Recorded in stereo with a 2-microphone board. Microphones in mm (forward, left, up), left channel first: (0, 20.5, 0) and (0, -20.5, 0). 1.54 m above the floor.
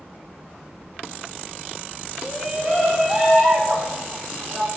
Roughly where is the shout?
Centre.